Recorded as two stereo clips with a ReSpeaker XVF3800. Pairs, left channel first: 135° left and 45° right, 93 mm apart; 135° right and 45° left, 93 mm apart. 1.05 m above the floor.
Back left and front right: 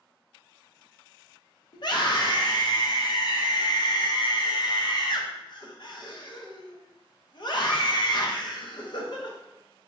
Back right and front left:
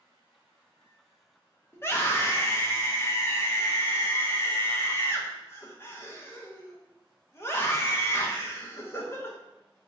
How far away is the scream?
About 0.8 m.